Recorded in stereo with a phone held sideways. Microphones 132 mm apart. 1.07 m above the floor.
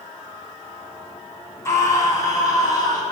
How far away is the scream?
About 7.5 m.